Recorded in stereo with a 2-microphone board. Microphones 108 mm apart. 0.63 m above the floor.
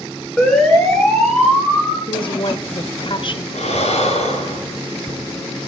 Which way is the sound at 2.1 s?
50° left (ahead or behind).